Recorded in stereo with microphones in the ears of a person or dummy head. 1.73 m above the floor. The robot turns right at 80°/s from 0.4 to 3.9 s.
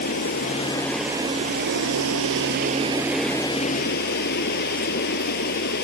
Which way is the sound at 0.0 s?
135° left.